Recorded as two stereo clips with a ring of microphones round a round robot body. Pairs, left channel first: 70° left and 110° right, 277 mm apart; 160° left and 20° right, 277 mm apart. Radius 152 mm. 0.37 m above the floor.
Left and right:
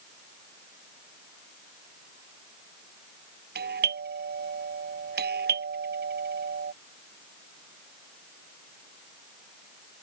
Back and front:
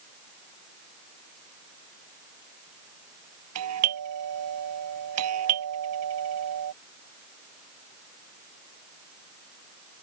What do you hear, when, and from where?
3.5 s a doorbell: 55° right